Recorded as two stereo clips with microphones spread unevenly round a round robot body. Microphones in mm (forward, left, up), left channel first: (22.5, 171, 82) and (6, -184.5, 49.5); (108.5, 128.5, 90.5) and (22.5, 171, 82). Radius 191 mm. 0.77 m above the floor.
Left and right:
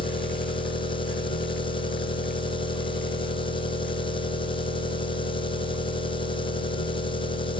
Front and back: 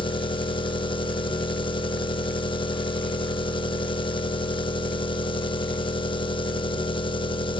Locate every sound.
0.0 s an engine running: 10° left, 1.3 m